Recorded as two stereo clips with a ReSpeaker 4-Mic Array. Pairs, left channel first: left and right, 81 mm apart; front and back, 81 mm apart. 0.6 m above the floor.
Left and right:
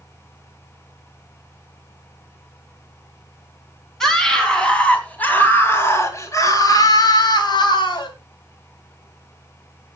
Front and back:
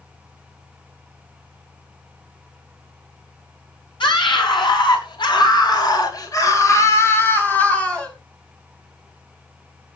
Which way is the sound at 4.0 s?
5° left.